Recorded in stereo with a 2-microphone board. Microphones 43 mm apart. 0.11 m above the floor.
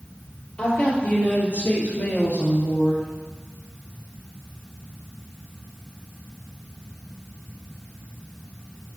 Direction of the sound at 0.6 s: 35° left (ahead or behind).